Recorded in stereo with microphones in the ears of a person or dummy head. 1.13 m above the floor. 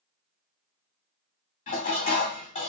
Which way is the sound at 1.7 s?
40° left (ahead or behind).